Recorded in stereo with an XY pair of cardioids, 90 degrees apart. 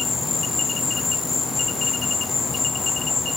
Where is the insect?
40° left, 1.0 m.